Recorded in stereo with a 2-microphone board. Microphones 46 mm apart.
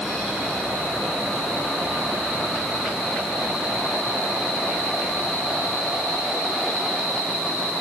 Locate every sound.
Only background noise.